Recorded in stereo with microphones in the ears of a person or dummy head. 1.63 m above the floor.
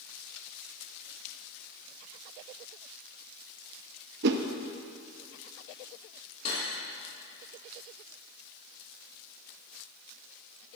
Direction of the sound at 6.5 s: 35° left (ahead or behind).